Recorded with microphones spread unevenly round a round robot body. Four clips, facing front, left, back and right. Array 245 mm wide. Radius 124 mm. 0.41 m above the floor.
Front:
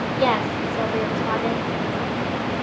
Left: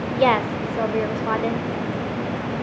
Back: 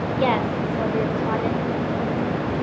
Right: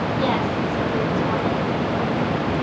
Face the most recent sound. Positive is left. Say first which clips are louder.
# left 6 dB, even
turn(degrees=65)